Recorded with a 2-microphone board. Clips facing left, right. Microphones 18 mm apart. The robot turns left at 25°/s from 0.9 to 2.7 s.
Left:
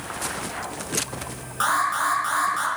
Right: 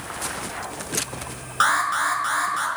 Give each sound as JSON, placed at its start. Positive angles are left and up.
{"t": 1.6, "sound": "an alarm", "side_deg": -35, "distance_m": 5.5}